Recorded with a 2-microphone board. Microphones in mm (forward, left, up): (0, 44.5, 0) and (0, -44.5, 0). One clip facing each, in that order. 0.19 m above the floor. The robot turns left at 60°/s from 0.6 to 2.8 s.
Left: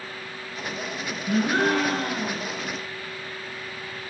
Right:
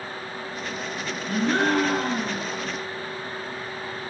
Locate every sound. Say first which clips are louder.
1.3 s a gasp: even; 30° left, 1.9 m; by 2.6 s 50° right, 1.9 m